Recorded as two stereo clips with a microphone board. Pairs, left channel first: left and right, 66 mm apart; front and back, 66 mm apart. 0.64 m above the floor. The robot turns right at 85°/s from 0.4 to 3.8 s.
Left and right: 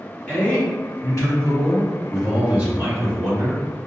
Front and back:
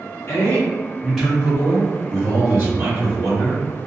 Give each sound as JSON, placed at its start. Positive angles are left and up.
{"t": 0.3, "sound": "a man speaking", "azimuth_deg": 20, "distance_m": 1.6}